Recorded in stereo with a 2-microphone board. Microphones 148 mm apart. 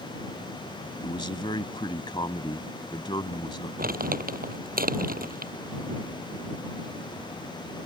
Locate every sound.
1.0 s a man speaking: 30° left (ahead or behind)
3.8 s crumpling: 75° right (ahead or behind)